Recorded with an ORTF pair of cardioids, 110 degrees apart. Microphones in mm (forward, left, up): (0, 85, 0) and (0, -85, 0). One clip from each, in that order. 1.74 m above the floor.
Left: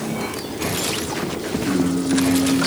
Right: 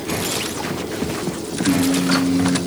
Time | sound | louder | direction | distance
1.6 | singing | right 4 dB | 50° right | 2 m